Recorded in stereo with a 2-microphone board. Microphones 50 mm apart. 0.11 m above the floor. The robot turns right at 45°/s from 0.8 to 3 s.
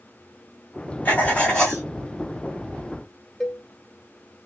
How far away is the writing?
About 1.3 m.